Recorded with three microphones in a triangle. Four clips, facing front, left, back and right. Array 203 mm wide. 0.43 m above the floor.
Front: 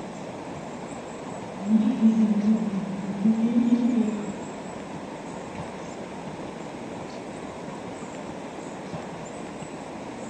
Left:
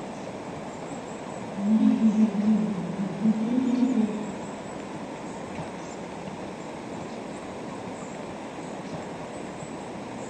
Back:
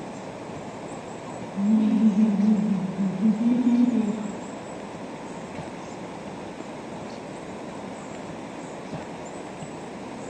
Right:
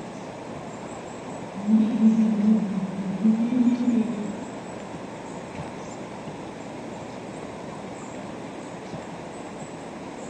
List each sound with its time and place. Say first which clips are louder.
1.6 s laughter: right 1 dB, back 1 dB; 170° right, 2 m